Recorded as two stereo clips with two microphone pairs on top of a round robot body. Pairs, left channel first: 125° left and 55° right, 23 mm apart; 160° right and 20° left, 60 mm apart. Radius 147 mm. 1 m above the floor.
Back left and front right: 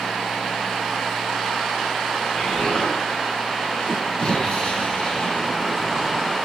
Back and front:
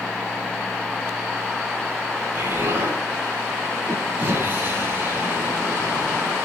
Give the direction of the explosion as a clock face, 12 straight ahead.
9 o'clock.